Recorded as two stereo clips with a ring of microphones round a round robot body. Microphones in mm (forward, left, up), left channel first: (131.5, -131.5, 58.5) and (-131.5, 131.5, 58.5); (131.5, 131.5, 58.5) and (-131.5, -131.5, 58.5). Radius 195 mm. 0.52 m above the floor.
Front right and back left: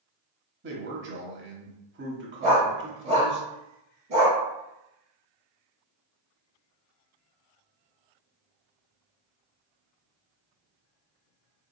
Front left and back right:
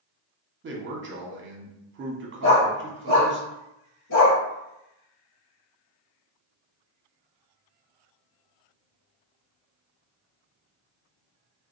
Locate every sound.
0.6 s a man speaking: straight behind, 1.2 m
2.4 s a dog barking: 90° left, 2.0 m